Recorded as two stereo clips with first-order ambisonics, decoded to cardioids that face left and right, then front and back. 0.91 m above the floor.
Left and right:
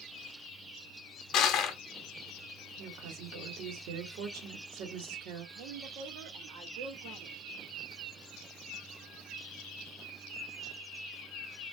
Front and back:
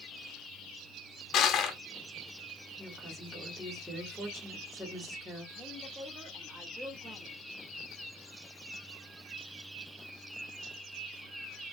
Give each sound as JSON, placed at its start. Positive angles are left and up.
{"t": 1.3, "sound": "crushing", "azimuth_deg": 45, "distance_m": 0.7}
{"t": 2.8, "sound": "a woman speaking", "azimuth_deg": -85, "distance_m": 1.6}
{"t": 5.5, "sound": "a woman speaking", "azimuth_deg": -105, "distance_m": 1.2}